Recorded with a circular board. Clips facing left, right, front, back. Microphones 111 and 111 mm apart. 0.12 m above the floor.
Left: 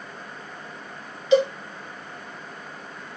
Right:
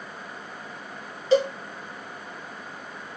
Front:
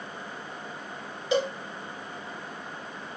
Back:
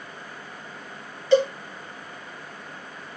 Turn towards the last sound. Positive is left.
turn(degrees=-65)